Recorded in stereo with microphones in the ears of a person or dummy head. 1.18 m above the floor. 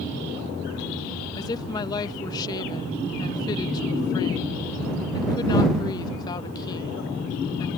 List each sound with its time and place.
1.4 s a woman speaking: 20° left (ahead or behind)